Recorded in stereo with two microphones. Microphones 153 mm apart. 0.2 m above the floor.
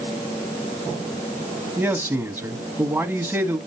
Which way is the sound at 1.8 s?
15° right (ahead or behind).